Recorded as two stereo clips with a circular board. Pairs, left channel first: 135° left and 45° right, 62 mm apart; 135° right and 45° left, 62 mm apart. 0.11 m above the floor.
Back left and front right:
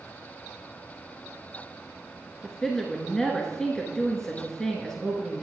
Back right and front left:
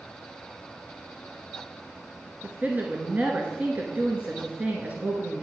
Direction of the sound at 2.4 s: 65° left.